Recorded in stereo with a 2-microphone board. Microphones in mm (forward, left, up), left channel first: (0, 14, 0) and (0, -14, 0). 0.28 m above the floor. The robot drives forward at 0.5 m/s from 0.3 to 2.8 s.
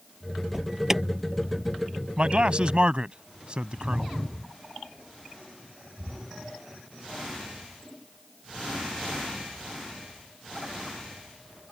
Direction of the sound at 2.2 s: 40° right (ahead or behind).